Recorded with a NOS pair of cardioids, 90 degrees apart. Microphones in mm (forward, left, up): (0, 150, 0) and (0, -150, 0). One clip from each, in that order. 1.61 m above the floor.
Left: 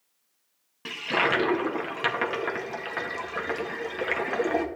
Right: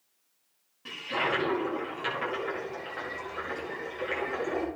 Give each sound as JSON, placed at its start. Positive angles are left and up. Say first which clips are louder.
{"t": 0.8, "sound": "a toilet flushing", "louder": "left 5 dB", "azimuth_deg": 70, "distance_m": 1.9}